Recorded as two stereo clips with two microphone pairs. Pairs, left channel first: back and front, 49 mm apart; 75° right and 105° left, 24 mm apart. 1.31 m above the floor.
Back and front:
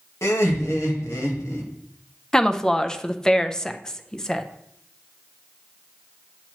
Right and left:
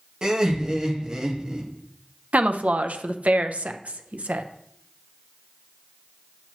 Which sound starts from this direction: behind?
Laughter, at 0.2 s.